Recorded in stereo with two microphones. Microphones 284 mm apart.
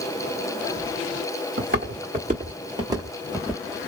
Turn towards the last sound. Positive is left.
turn(degrees=5)  # may be behind; listen again after turning